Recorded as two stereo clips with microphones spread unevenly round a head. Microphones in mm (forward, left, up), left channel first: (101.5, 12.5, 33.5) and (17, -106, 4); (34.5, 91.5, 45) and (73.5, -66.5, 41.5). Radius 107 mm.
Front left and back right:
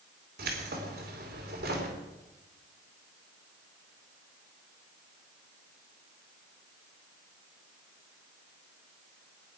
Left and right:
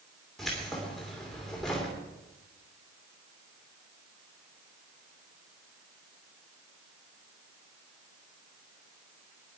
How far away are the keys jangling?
About 2.5 m.